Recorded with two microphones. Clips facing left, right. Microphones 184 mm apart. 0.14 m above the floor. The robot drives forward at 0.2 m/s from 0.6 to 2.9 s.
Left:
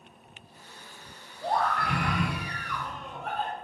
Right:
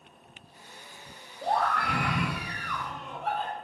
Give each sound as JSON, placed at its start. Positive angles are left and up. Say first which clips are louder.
{"t": 1.4, "sound": "a scream", "louder": "even", "side_deg": -65, "distance_m": 3.0}